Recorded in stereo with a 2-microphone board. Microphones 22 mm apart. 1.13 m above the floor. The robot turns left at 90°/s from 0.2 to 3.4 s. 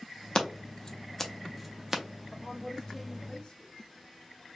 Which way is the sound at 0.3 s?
30° left (ahead or behind).